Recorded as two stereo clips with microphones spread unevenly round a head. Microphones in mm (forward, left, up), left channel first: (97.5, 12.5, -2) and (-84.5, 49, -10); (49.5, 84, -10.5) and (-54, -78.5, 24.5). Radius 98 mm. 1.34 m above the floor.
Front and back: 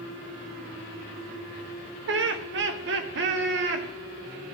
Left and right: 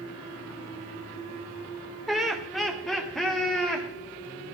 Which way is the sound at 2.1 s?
145° left.